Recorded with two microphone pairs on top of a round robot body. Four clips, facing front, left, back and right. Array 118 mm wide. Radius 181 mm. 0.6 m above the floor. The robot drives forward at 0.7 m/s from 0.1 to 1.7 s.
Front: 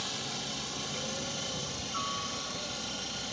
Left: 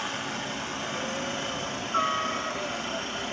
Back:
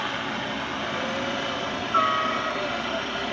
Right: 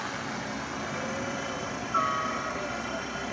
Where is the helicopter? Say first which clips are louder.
Left 1 dB, back 11 dB; 170° left.